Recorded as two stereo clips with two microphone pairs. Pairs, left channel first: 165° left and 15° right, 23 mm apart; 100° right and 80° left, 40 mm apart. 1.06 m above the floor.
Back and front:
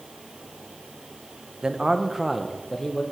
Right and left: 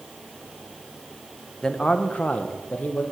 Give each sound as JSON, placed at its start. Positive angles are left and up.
{"t": 1.6, "sound": "a man speaking", "azimuth_deg": -55, "distance_m": 0.6}